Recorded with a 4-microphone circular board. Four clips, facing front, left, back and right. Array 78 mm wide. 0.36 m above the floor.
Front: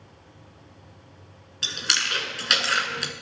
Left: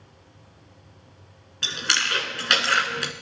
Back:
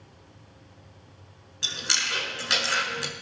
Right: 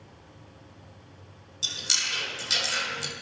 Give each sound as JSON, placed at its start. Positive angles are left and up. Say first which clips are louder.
{"t": 1.6, "sound": "chewing", "louder": "left 10 dB, front 3 dB", "azimuth_deg": 75, "distance_m": 1.3}